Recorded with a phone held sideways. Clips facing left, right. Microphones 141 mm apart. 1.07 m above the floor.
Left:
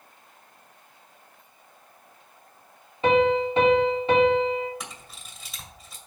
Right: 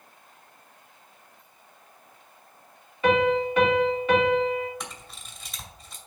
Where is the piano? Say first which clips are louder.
Left 1 dB; 30° left (ahead or behind), 2.5 m.